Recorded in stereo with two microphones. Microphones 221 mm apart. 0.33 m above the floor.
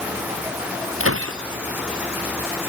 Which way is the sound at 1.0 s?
70° right (ahead or behind).